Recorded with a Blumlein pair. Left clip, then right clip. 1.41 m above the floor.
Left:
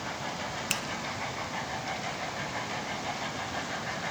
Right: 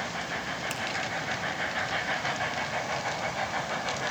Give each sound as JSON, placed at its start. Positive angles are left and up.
{"t": 0.7, "sound": "a finger snap", "azimuth_deg": 65, "distance_m": 1.5}